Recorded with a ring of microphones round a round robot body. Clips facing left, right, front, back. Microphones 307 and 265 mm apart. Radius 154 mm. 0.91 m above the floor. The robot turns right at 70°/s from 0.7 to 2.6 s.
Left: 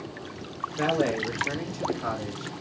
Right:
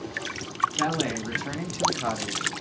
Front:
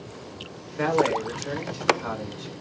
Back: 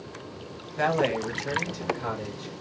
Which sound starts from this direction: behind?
A man speaking, at 0.8 s.